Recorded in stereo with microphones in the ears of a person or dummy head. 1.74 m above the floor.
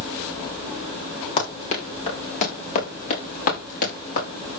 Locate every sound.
1.4 s running footsteps: 30° left (ahead or behind), 7 m; by 4.2 s 45° left (ahead or behind), 9 m